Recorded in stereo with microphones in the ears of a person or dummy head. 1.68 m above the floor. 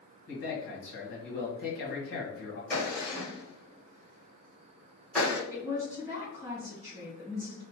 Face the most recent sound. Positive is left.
turn(degrees=-20)  # may be behind; listen again after turning